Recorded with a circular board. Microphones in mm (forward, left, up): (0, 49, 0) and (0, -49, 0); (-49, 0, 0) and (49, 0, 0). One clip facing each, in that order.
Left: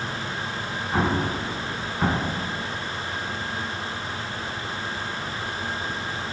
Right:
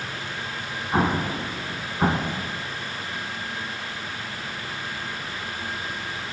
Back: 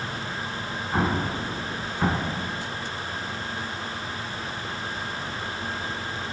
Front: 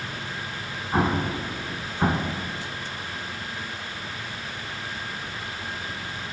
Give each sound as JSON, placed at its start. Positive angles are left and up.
{"t": 0.9, "sound": "an explosion", "azimuth_deg": -55, "distance_m": 0.6}